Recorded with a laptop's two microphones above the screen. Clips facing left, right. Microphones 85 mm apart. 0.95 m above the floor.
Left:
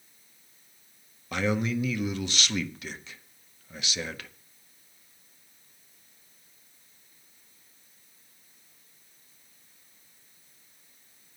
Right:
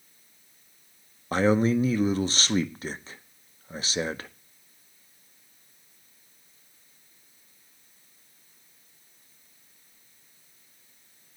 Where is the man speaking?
35° right (ahead or behind), 0.6 m.